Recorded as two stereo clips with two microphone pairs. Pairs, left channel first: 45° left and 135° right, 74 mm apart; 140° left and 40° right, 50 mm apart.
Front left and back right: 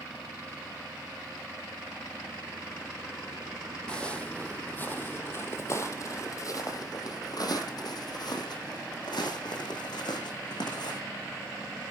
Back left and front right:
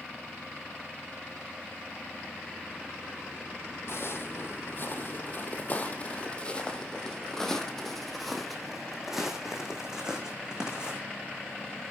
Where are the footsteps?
120° left, 2.5 m; by 11.0 s 35° left, 4.5 m.